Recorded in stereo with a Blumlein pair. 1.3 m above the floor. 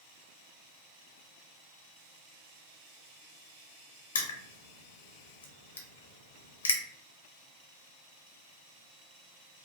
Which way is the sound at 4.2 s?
70° left.